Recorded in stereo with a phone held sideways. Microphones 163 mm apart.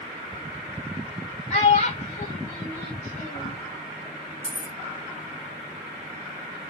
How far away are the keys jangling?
About 1.5 m.